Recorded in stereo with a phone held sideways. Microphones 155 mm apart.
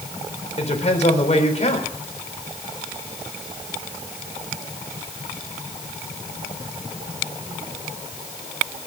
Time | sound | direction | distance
0.6 | a woman speaking | 45° left (ahead or behind) | 4 m